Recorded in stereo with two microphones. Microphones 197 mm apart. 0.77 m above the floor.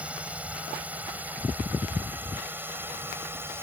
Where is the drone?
5° right (ahead or behind); by 3.6 s 10° right (ahead or behind).